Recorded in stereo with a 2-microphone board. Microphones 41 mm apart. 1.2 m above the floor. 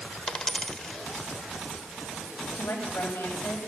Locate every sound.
0.3 s a dropped coin: 15° left (ahead or behind), 1.2 m
2.5 s a woman speaking: 70° left (ahead or behind), 7 m